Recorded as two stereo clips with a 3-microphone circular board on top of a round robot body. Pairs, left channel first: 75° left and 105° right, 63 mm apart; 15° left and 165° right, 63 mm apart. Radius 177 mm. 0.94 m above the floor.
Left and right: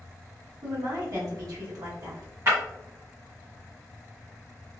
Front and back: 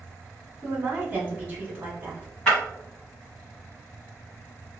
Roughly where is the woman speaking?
Right.